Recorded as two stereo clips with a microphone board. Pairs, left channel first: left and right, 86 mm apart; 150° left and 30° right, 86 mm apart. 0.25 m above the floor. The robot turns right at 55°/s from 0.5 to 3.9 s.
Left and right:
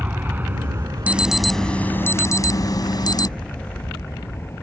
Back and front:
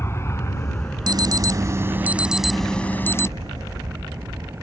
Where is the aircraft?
155° right; by 4.6 s 30° left.